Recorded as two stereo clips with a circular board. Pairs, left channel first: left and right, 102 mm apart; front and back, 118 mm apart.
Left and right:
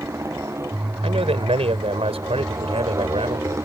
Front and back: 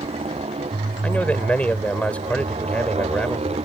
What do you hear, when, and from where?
0.0 s a motorcycle: 150° right
1.0 s a man speaking: 80° right